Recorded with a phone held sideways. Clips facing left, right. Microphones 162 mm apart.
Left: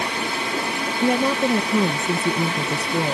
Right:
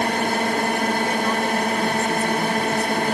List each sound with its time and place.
0.0 s a drone: 50° right (ahead or behind)
1.0 s a woman speaking: 75° left (ahead or behind)